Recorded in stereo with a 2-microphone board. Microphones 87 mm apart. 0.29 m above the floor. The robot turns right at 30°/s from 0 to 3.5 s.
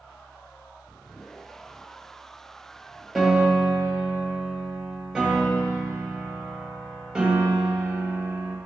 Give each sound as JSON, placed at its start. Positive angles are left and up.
{"t": 3.1, "sound": "a piano", "side_deg": 0, "distance_m": 1.7}